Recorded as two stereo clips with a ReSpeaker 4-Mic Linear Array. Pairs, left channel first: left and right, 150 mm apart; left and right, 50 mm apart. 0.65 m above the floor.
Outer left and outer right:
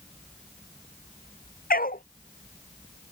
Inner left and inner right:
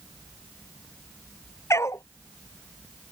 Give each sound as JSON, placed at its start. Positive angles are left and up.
{"t": 1.7, "sound": "a dog barking", "side_deg": 80}